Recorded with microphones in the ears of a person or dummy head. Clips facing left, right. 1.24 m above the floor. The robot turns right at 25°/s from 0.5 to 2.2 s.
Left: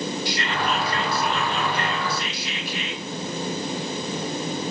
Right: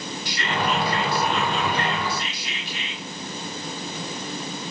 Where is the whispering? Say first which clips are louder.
Even; 35° left, 1.3 m; by 3.0 s 75° left, 1.3 m.